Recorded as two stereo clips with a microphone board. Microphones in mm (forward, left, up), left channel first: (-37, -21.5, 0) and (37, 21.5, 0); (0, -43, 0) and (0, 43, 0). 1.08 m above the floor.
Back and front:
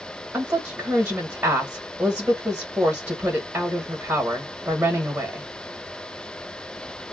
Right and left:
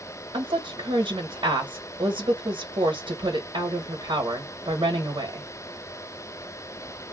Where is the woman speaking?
95° left, 1.3 m.